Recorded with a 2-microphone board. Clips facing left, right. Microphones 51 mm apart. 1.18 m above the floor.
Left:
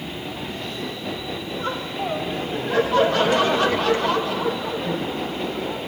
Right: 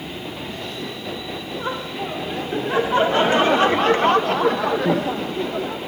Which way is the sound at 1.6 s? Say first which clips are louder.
Even; 15° right (ahead or behind).